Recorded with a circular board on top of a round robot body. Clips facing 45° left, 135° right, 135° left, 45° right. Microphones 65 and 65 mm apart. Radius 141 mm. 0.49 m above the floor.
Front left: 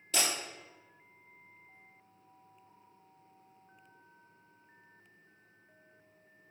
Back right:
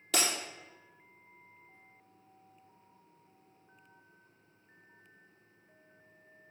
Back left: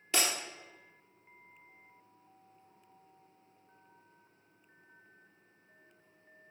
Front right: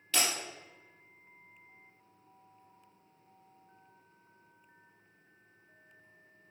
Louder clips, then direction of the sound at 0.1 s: Back right 1 dB, even; 155° right.